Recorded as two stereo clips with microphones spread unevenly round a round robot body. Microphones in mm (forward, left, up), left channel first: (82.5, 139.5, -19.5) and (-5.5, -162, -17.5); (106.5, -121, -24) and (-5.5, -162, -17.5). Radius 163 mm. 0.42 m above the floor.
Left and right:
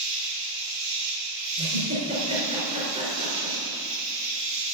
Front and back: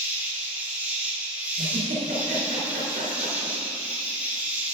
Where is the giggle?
Straight behind, 3.5 m.